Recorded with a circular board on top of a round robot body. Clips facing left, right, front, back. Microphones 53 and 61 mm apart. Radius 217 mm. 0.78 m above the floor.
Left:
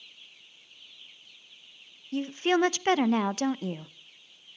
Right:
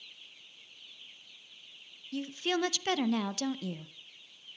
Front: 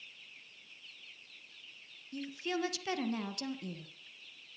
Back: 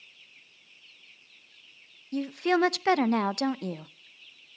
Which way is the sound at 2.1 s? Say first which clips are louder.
Left 7 dB, back 12 dB; 150° left.